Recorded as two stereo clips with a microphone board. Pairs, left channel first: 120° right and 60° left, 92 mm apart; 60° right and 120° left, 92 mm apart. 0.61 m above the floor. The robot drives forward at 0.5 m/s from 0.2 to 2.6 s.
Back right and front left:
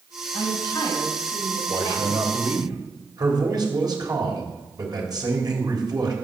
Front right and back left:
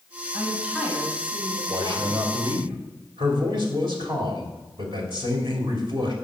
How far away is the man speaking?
About 3 m.